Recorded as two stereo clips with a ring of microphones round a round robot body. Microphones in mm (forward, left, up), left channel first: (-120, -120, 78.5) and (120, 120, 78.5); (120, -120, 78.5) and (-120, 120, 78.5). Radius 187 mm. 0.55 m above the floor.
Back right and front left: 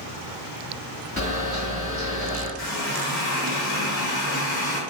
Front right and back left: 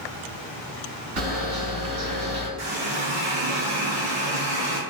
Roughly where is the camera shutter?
Behind left.